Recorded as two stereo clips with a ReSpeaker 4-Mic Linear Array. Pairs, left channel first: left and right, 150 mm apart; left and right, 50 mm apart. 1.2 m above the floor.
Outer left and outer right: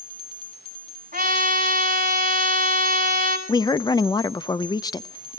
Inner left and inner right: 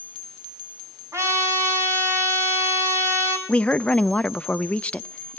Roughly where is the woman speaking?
Left.